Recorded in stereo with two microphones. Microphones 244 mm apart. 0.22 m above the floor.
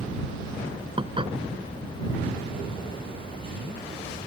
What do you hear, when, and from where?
1.0 s dishes clattering: 20° right (ahead or behind)